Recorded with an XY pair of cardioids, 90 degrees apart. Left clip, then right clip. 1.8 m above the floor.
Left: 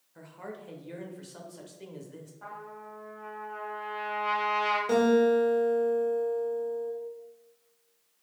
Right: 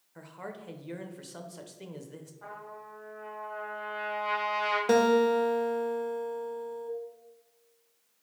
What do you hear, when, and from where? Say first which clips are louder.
0.1 s a man speaking: even; 30° right, 0.7 m
2.4 s a trumpet: left 2 dB; 20° left, 1.4 m
4.9 s a guitar: even; 60° right, 0.7 m